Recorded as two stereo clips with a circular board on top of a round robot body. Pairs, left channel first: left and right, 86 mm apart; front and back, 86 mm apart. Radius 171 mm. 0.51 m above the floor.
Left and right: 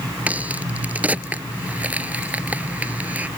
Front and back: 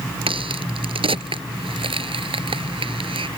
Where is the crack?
165° right.